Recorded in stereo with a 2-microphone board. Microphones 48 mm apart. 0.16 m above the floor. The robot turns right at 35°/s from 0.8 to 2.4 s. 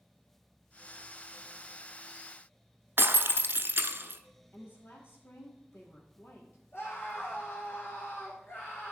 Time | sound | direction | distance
3.0 | breaking glass | 50° right (ahead or behind) | 0.8 m
4.5 | a woman speaking | 50° left (ahead or behind) | 4.5 m
6.7 | a scream | 65° left (ahead or behind) | 4.5 m